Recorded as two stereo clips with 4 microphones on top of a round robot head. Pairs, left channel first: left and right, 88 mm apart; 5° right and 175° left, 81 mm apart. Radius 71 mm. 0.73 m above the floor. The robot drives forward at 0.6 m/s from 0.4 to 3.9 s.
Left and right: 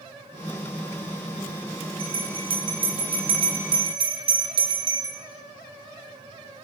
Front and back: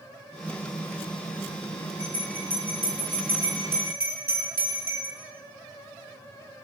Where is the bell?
105° right, 7 m; by 5.2 s 115° right, 7.5 m.